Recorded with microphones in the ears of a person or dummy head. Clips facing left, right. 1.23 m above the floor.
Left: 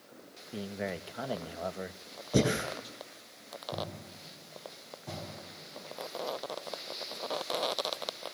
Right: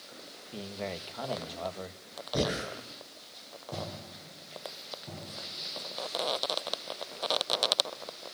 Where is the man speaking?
15° left (ahead or behind), 1.9 m.